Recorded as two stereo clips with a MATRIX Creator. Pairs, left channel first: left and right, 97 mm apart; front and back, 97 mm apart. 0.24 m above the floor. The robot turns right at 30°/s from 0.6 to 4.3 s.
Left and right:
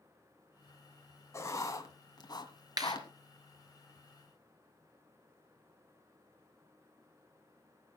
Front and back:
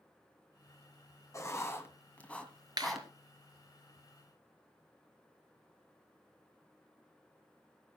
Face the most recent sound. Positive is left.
turn(degrees=-90)